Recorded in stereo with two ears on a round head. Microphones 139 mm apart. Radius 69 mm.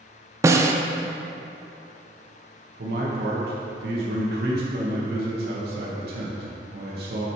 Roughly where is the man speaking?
Right.